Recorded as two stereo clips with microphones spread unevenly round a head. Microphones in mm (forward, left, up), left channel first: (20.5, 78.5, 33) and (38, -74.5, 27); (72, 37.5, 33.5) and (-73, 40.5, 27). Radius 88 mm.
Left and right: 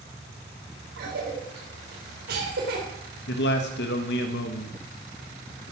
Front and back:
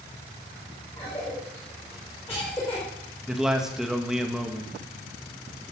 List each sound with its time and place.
1.0 s a cough: 80° right, 5 m
3.3 s a man speaking: 95° left, 2.0 m